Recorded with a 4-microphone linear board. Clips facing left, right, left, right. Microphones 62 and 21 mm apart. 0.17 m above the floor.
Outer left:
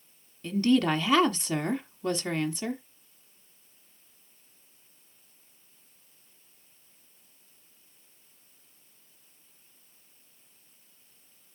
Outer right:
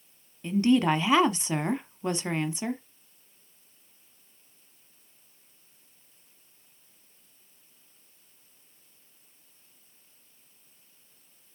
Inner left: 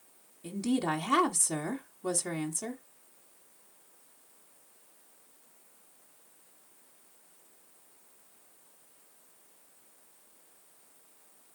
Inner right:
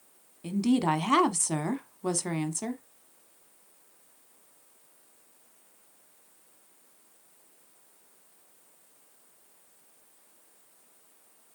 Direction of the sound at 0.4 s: 20° right (ahead or behind).